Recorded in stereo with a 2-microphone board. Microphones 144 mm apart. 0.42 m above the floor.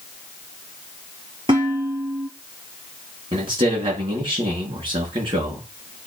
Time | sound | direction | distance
1.5 | dishes clattering | 35° right (ahead or behind) | 5.5 m
3.3 | a man speaking | 40° right (ahead or behind) | 4.5 m